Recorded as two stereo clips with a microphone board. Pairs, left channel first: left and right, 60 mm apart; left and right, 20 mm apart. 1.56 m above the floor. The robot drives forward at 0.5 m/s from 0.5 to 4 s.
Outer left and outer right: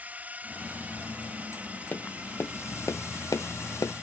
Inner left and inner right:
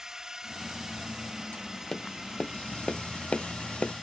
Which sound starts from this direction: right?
A drone, at 0.0 s.